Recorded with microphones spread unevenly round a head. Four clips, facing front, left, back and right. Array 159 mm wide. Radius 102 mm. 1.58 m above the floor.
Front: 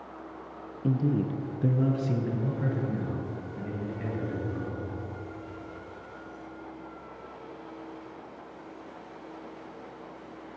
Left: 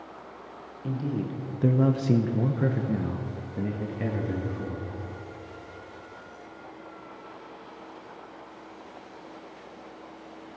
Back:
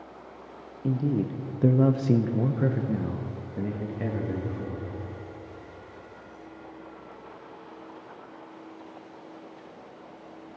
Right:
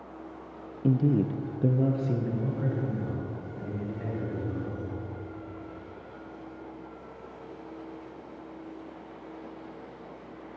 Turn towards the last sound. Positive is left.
turn(degrees=115)